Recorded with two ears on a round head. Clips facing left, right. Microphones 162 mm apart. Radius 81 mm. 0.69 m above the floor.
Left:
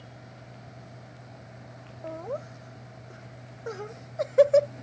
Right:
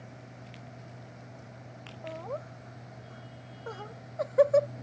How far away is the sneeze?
No sneeze in this recording.